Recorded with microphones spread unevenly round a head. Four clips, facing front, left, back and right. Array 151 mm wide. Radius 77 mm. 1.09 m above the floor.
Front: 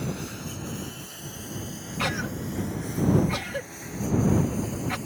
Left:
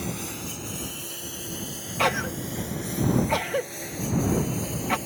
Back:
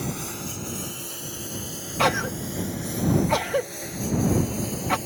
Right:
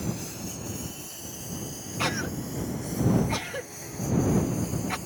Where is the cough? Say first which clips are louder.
Left 5 dB, back 7 dB; 145° left.